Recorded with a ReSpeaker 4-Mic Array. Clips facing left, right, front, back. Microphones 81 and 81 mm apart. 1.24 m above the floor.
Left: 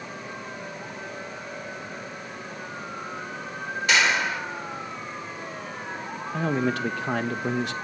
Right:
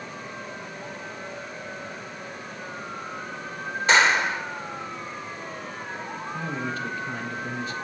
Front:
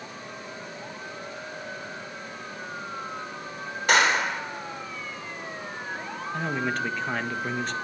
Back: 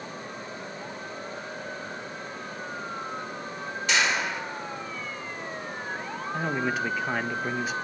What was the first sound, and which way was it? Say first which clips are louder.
A clap: right 3 dB, front 5 dB; 35° right.